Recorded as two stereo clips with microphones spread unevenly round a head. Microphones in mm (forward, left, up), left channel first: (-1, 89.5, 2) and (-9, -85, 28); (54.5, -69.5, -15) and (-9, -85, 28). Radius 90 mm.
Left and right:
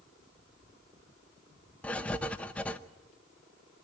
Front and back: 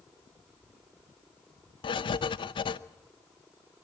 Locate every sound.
1.8 s writing: straight ahead, 0.7 m